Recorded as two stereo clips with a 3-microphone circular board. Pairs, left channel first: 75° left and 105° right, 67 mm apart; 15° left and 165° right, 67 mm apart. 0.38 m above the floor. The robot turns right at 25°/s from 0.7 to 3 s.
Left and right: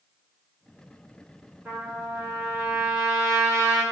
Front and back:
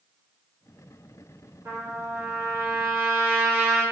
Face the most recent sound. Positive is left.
turn(degrees=-110)